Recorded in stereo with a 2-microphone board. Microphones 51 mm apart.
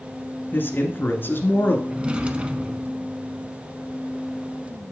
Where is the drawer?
20° right (ahead or behind), 0.8 m.